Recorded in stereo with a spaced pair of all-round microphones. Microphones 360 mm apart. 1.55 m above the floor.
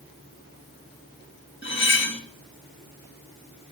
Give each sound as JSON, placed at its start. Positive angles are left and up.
{"t": 1.6, "sound": "cutlery clinking", "side_deg": 30, "distance_m": 1.4}